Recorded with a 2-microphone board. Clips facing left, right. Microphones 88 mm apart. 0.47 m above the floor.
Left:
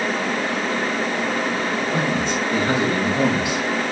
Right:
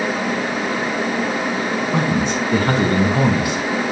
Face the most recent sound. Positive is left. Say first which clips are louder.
# right 3 dB
turn(degrees=-70)  # may be behind; listen again after turning